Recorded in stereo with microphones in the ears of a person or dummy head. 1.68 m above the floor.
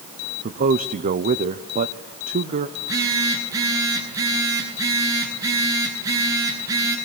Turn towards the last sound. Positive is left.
turn(degrees=-20)  # may be behind; listen again after turning